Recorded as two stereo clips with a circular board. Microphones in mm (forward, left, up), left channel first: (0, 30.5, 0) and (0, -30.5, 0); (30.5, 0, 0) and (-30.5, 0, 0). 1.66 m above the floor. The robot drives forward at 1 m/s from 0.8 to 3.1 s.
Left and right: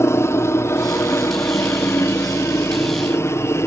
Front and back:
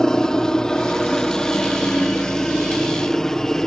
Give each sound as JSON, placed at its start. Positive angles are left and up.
{"t": 0.0, "sound": "a helicopter", "azimuth_deg": 75}